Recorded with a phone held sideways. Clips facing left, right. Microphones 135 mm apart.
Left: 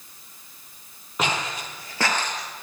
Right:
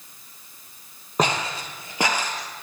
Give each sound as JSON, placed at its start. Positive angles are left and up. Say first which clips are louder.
{"t": 1.2, "sound": "footsteps", "louder": "right 3 dB", "side_deg": -40, "distance_m": 2.0}